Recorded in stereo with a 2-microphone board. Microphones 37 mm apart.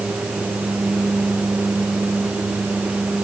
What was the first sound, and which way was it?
Only background noise.